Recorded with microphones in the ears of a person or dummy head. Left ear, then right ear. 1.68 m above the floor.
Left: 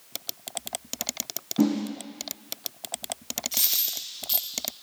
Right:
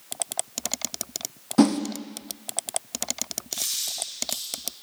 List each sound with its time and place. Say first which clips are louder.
1.6 s a whoosh: right 5 dB; 65° right (ahead or behind), 1.0 m
3.5 s a dropped coin: left 2 dB; 5° left (ahead or behind), 1.6 m